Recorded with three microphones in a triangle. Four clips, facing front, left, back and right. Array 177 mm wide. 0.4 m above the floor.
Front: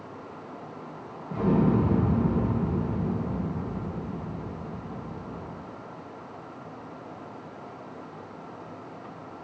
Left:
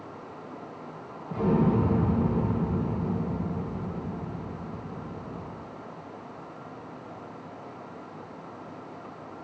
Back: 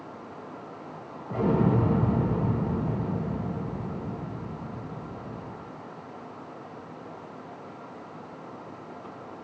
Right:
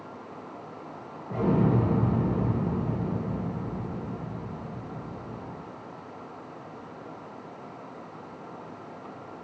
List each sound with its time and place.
1.3 s an explosion: 150° right, 1.7 m